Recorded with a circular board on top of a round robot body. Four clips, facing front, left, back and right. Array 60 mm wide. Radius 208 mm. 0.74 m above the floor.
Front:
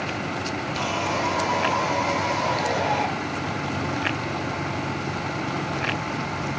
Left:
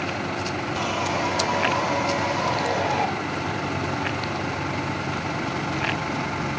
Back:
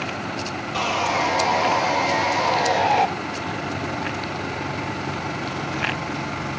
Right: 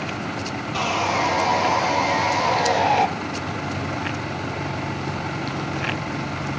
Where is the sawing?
140° right, 1.4 m.